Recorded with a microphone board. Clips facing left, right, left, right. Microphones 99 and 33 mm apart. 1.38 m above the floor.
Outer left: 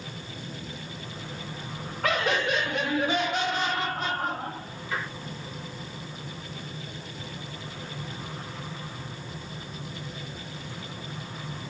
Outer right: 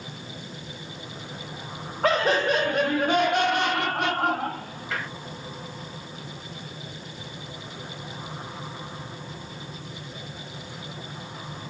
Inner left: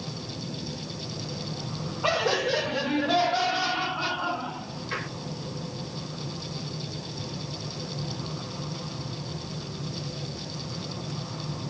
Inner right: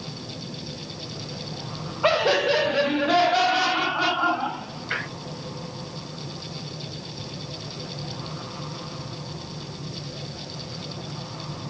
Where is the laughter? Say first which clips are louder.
Outer right 5 dB, inner right 5 dB; 35° right (ahead or behind), 1.9 m; by 5.1 s 75° right (ahead or behind), 1.7 m.